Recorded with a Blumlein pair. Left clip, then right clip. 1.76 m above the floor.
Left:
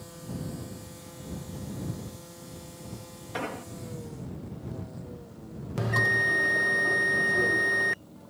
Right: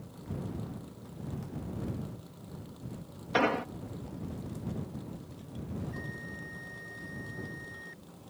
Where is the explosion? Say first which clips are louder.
Right 7 dB; 70° right.